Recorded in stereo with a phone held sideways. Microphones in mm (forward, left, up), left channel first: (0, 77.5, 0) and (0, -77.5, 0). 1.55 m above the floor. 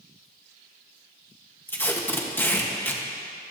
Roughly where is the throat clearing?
No throat clearing in this recording.